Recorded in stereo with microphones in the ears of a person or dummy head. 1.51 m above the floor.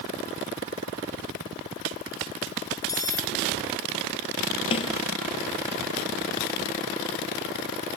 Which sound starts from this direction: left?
A snare drum, at 4.7 s.